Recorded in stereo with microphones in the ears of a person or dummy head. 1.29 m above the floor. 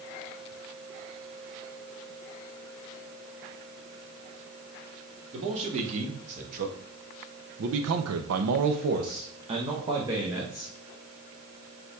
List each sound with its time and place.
5.3 s a man speaking: 35° right (ahead or behind), 2.5 m; by 10.7 s 15° right (ahead or behind), 2 m